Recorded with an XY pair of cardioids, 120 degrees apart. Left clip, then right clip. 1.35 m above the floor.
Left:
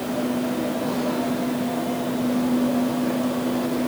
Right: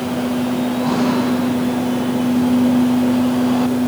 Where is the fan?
60° right, 4.5 m.